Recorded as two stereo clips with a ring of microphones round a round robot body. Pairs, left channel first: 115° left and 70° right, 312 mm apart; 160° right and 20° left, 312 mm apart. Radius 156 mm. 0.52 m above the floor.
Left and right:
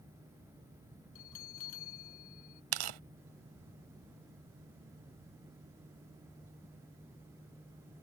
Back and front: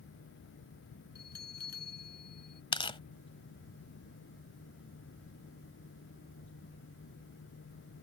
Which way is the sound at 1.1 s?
145° left.